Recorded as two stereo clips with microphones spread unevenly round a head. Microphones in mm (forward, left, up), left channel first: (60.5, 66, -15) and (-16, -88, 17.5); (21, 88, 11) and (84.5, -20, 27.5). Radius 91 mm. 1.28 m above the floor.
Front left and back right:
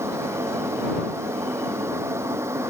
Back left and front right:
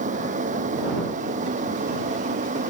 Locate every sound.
0.0 s a fan: 40° right